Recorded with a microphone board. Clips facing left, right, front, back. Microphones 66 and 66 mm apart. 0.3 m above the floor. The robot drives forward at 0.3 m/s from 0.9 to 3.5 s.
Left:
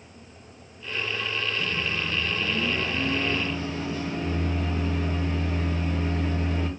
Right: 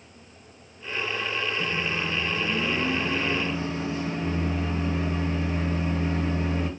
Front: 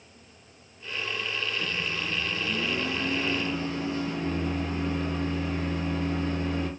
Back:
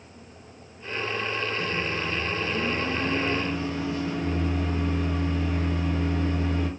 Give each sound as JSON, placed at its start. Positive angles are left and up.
{"t": 1.6, "sound": "a microwave", "azimuth_deg": -110, "distance_m": 1.9}